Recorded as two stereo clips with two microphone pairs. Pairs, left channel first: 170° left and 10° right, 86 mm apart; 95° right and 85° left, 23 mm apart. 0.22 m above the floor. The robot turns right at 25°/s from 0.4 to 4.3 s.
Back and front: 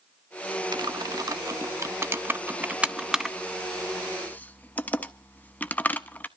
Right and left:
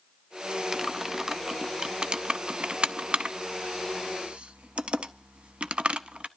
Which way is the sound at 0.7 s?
10° left.